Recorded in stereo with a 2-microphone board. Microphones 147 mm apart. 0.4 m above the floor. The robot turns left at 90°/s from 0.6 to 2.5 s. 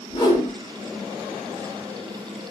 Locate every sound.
0.1 s a whoosh: 30° left (ahead or behind), 1.0 m